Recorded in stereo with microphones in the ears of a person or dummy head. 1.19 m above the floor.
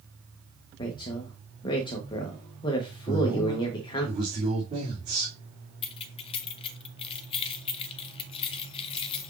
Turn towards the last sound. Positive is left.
turn(degrees=30)  # may be behind; listen again after turning